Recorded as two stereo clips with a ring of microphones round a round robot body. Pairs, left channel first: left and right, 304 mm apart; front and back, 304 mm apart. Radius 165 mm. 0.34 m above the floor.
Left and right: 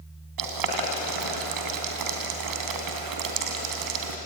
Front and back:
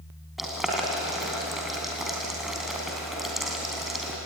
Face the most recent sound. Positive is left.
turn(degrees=-90)